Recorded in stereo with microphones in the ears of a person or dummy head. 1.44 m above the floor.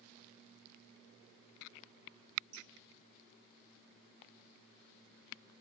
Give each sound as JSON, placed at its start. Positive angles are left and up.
{"t": 2.5, "sound": "dripping", "side_deg": -45, "distance_m": 5.0}